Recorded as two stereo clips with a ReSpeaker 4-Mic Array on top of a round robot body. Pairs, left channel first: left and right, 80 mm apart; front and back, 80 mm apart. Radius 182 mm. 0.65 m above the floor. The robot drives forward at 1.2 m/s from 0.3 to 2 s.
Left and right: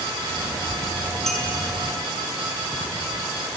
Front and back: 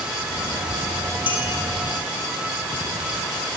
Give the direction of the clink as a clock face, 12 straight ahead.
12 o'clock.